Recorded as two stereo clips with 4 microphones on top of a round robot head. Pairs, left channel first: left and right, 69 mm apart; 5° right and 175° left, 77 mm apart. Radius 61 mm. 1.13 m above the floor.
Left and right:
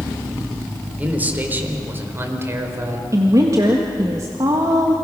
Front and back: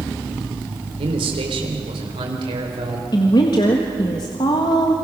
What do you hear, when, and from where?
1.0 s a man speaking: 160° right, 3 m; by 3.0 s 140° right, 4 m
3.1 s a woman speaking: 40° right, 1.5 m